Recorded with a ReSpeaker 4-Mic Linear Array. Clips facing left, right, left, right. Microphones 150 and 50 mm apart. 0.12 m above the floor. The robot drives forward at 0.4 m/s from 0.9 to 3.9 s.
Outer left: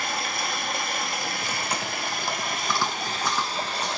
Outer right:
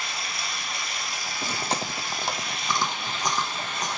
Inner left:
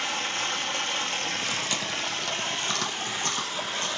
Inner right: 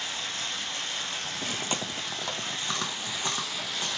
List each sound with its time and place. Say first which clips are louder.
0.0 s running water: outer left 6 dB, inner left 5 dB; 55° left (ahead or behind), 0.7 m; by 4.0 s 35° left (ahead or behind), 1.1 m
1.4 s chewing: outer right 1 dB, inner left 2 dB; 35° right (ahead or behind), 0.6 m; by 4.0 s 15° right (ahead or behind), 1.5 m